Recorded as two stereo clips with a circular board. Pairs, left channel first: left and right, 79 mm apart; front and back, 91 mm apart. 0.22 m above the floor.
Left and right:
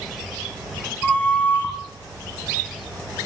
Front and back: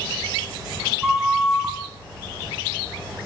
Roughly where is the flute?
Left.